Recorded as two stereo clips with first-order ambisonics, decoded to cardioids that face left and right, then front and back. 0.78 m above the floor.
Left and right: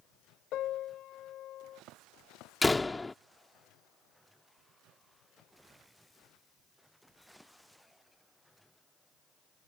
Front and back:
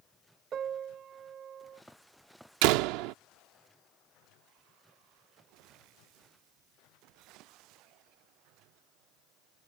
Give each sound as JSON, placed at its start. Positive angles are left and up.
{"t": 0.5, "sound": "a piano", "azimuth_deg": 125}
{"t": 2.6, "sound": "a door slam", "azimuth_deg": 170}